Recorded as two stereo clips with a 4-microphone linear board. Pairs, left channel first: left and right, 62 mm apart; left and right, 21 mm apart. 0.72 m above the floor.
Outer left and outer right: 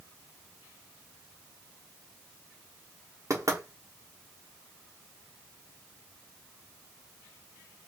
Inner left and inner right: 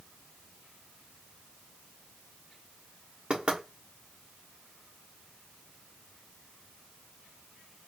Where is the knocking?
55° right (ahead or behind), 1.2 m.